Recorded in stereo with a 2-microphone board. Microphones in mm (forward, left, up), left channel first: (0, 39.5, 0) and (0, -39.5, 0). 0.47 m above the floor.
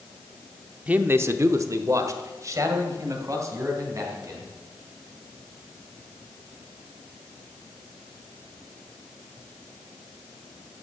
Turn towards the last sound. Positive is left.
turn(degrees=-40)  # may be behind; listen again after turning